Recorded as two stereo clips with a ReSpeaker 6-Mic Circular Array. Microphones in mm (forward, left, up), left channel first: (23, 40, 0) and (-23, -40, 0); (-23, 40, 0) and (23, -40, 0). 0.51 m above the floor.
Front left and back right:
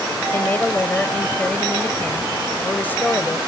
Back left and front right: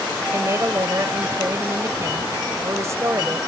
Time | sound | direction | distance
0.3 | a woman speaking | 10° right | ?